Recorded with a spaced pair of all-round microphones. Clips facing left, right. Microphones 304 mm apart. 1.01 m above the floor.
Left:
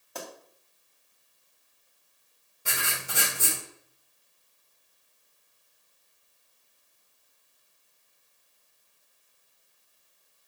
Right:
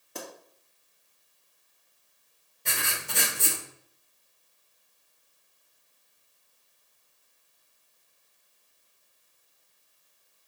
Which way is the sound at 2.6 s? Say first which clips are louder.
Even; 5° left (ahead or behind).